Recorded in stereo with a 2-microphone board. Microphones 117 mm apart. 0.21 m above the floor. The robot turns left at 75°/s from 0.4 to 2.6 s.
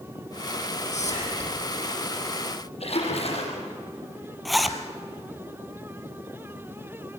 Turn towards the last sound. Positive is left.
turn(degrees=0)  # may be behind; listen again after turning